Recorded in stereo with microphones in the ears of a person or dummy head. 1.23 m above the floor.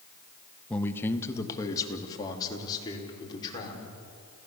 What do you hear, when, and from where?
0.7 s a man speaking: 10° left (ahead or behind), 1.0 m; by 3.9 s 30° left (ahead or behind), 5.5 m